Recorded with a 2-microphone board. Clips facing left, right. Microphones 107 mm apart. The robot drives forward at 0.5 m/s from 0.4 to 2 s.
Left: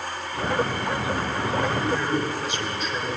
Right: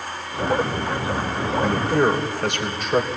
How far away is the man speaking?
About 3 m.